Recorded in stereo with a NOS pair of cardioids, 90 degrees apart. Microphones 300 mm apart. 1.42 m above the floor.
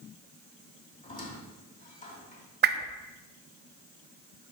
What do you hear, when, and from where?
1.0 s a squeak: 25° left, 2.5 m
2.6 s a whoosh: 35° right, 0.6 m